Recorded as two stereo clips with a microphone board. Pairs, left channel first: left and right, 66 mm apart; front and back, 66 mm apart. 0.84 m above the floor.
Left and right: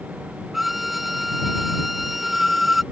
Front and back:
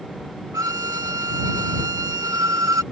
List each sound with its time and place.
0.5 s a violin: 175° right